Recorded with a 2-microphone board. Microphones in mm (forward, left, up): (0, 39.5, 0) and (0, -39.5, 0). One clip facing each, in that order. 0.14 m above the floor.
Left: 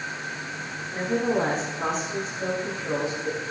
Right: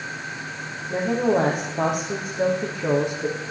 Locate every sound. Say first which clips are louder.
0.9 s a woman speaking: right 4 dB; 60° right (ahead or behind), 3.5 m